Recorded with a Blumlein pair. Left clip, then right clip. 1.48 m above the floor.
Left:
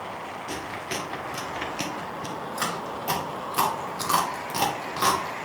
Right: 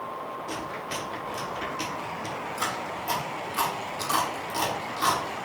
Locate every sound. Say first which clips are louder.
0.5 s chewing: left 3 dB; 25° left, 1.8 m